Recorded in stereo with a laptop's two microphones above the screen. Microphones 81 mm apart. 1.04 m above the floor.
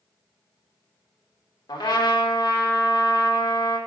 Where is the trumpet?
75° left (ahead or behind), 1.4 m.